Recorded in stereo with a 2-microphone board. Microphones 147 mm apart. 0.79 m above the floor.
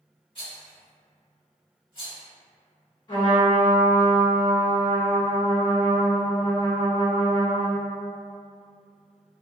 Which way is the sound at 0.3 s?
40° left (ahead or behind).